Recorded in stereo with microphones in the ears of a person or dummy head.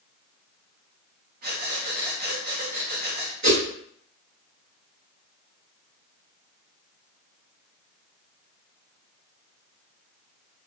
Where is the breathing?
45° right (ahead or behind), 0.7 m.